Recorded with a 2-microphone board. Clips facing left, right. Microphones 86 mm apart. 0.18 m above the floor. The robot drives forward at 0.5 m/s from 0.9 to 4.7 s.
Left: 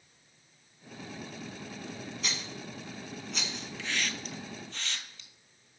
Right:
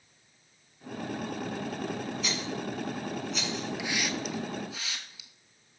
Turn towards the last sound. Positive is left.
turn(degrees=-5)  # may be behind; listen again after turning